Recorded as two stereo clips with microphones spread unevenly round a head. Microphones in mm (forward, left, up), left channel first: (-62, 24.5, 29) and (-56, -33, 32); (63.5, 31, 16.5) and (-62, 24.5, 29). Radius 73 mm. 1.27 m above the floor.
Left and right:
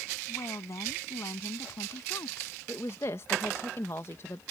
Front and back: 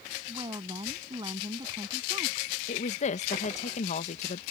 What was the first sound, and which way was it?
A woman speaking, 125° left.